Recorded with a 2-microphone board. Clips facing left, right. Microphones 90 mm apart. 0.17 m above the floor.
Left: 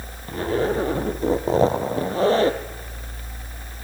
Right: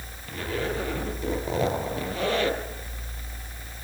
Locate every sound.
0.3 s a zipper: 35° left (ahead or behind), 2.5 m